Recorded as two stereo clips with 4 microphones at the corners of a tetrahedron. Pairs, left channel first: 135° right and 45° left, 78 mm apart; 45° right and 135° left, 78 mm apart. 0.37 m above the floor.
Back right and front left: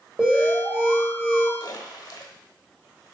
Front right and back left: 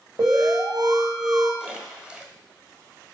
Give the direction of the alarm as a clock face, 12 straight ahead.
8 o'clock.